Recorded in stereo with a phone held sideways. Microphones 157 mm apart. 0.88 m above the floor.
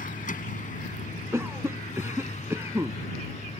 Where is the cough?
15° right (ahead or behind).